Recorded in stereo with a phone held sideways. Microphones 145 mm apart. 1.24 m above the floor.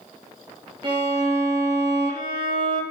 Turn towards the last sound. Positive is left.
turn(degrees=-40)  # may be behind; listen again after turning